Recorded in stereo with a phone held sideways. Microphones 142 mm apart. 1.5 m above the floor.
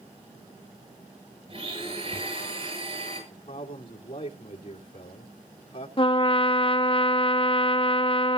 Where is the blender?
45° right (ahead or behind), 8 m.